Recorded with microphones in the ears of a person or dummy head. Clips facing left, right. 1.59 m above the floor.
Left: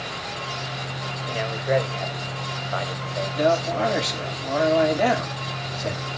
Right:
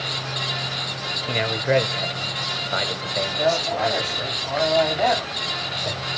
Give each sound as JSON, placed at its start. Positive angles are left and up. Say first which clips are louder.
{"t": 1.3, "sound": "a man speaking", "louder": "right 2 dB", "side_deg": -35, "distance_m": 1.2}
{"t": 3.4, "sound": "a man speaking", "louder": "left 2 dB", "side_deg": 35, "distance_m": 4.5}